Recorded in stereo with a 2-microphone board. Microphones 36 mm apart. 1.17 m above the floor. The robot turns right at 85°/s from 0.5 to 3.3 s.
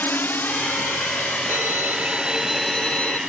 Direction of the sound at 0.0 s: 60° left (ahead or behind).